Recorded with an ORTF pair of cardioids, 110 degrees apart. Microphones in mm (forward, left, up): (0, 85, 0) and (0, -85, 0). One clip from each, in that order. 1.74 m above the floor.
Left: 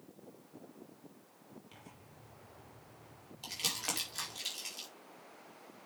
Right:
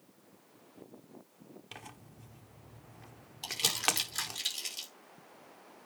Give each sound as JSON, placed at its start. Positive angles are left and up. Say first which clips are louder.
{"t": 1.7, "sound": "tearing paper", "louder": "right 7 dB", "azimuth_deg": -65, "distance_m": 1.5}
{"t": 3.4, "sound": "crumpling", "louder": "right 6 dB", "azimuth_deg": -30, "distance_m": 4.0}